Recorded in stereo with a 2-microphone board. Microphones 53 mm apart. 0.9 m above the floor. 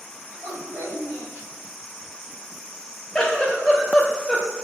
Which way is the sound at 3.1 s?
15° left (ahead or behind).